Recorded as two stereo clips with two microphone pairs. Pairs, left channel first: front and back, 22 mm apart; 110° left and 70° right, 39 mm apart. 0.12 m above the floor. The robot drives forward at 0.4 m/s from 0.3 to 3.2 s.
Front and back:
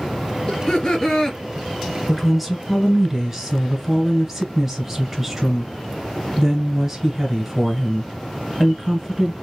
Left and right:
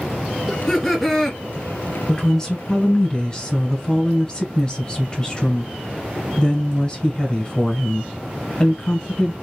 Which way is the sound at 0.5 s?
25° left.